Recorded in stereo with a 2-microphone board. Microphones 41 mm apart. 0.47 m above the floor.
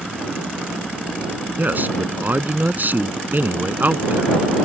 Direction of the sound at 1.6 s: 50° right (ahead or behind).